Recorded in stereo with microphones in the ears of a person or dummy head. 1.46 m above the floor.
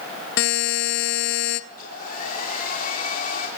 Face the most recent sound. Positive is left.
turn(degrees=45)  # may be behind; listen again after turning